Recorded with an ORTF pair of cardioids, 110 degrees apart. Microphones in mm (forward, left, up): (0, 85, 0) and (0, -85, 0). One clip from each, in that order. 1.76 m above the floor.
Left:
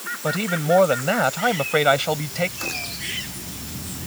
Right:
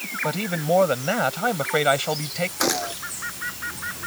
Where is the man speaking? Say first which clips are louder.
Left 4 dB; 10° left.